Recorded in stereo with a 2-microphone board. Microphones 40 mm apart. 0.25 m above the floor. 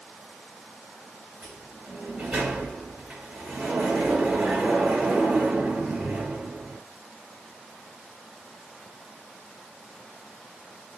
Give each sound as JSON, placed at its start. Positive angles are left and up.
{"t": 1.4, "sound": "a sliding door", "side_deg": -30, "distance_m": 2.5}